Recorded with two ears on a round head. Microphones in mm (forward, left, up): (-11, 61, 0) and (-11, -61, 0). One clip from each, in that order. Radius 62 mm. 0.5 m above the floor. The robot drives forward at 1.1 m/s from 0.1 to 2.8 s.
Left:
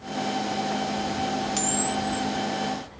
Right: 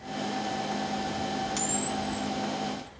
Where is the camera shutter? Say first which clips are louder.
Left 4 dB; 5° left (ahead or behind), 2.5 m.